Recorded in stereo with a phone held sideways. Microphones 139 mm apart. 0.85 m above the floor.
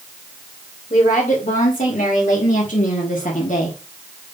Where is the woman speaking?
65° left (ahead or behind), 3 m; by 3.8 s 60° left (ahead or behind), 1.5 m.